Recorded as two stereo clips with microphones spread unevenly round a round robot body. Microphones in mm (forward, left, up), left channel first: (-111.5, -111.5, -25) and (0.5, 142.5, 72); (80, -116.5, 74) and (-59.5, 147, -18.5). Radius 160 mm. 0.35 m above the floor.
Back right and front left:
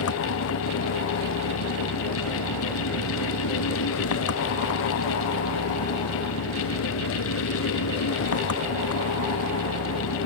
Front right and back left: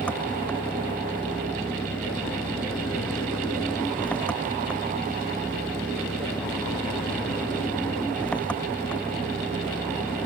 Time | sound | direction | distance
0.0 | an engine running | 150° right | ?